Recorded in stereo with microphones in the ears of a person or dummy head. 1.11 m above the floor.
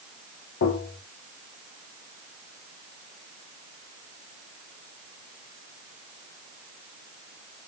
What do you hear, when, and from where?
0.6 s tapping: 65° left (ahead or behind), 1.0 m